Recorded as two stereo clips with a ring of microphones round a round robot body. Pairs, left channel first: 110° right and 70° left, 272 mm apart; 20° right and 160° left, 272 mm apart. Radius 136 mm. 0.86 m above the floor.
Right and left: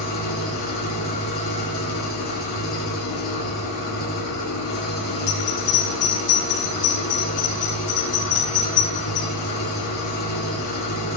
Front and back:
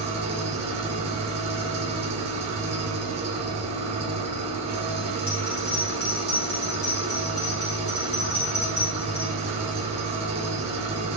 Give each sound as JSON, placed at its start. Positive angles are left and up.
{"t": 0.0, "sound": "an engine running", "azimuth_deg": -135, "distance_m": 2.5}
{"t": 5.3, "sound": "a bell", "azimuth_deg": -80, "distance_m": 4.5}